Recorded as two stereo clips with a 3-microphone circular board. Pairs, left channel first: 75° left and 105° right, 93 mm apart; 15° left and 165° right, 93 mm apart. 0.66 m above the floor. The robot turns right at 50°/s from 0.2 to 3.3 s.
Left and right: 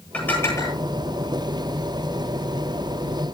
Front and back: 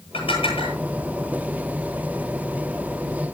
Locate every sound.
0.1 s dishes clattering: straight ahead, 9 m; by 0.8 s 30° left, 9 m